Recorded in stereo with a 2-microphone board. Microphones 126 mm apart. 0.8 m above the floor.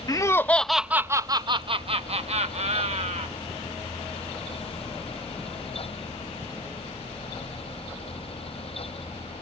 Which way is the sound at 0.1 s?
30° left (ahead or behind).